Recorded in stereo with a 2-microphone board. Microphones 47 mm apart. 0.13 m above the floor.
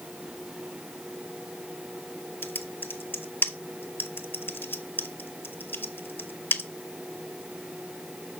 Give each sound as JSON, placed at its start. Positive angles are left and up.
{"t": 2.4, "sound": "typing on a keyboard", "side_deg": 45, "distance_m": 0.6}